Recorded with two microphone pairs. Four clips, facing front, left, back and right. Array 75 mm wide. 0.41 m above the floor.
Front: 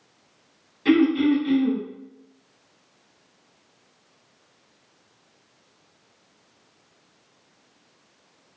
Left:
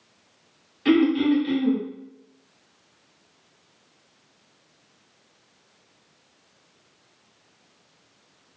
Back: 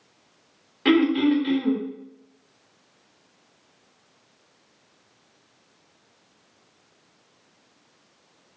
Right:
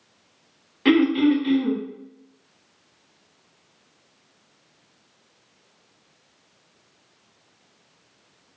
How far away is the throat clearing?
About 1.2 m.